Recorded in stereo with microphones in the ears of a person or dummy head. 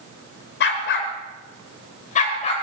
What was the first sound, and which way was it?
A dog barking, 60° left (ahead or behind).